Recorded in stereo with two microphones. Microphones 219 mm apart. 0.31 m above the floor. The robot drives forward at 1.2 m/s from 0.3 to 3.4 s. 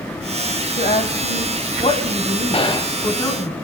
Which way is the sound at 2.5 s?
25° left (ahead or behind).